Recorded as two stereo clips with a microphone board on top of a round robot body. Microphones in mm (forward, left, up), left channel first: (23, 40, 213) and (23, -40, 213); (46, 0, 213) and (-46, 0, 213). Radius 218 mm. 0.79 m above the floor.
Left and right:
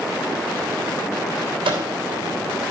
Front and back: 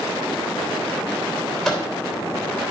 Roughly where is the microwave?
Right.